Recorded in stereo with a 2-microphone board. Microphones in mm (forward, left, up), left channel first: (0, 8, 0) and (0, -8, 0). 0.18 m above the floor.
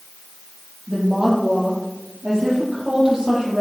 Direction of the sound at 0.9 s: 25° right (ahead or behind).